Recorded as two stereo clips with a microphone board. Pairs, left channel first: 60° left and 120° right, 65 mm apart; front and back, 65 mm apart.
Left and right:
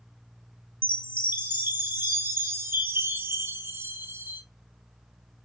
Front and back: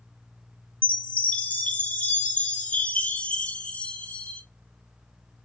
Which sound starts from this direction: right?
A chime, at 0.8 s.